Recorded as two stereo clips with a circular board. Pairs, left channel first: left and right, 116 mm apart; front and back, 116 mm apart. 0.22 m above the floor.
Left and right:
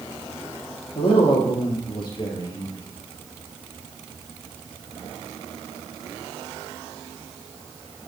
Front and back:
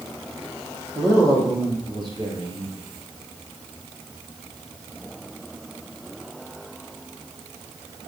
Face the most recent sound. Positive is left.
turn(degrees=140)